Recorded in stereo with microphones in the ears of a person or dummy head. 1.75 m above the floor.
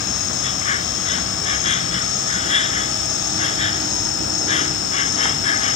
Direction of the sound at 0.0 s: 40° left (ahead or behind).